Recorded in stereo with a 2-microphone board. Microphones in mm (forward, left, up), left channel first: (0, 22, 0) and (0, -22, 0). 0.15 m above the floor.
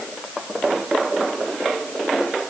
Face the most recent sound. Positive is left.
No sound to turn to.